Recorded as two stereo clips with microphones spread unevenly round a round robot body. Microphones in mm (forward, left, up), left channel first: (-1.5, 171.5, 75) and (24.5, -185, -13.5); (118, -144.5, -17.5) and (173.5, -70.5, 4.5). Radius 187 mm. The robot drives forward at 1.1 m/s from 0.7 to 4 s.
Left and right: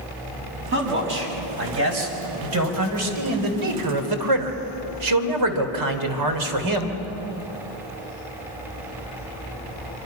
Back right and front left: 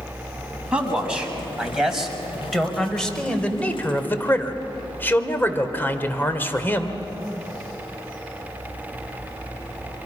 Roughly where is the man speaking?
Ahead right.